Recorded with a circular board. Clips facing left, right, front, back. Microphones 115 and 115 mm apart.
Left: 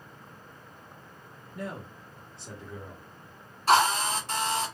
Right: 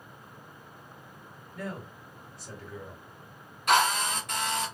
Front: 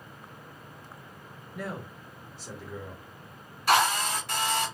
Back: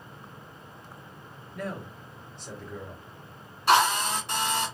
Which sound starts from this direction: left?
A man speaking, at 1.6 s.